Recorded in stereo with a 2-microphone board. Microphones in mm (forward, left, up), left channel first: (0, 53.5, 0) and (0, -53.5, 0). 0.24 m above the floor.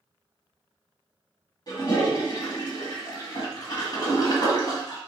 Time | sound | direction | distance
1.7 | a toilet flushing | 40° left (ahead or behind) | 1.7 m